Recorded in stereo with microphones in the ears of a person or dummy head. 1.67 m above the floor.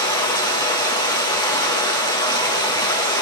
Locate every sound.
0.0 s running water: 15° left (ahead or behind), 1.5 m